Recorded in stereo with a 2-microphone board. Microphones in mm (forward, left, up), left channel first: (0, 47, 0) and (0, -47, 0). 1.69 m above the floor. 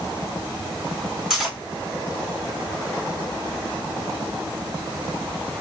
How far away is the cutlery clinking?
About 2.5 m.